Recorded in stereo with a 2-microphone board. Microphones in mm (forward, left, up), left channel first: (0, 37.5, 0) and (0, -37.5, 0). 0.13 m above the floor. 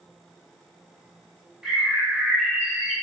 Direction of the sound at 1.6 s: 10° right (ahead or behind).